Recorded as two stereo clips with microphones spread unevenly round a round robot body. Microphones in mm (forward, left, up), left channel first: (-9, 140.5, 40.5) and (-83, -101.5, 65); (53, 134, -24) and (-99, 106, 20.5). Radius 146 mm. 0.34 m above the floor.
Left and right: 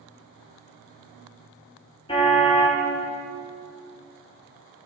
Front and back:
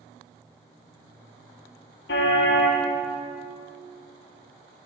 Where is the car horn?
Straight ahead, 3.5 m.